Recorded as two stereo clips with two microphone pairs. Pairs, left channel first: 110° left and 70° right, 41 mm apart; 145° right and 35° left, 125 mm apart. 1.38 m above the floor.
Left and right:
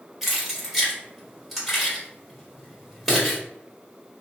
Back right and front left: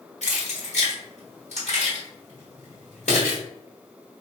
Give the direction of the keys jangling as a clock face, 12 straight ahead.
5 o'clock.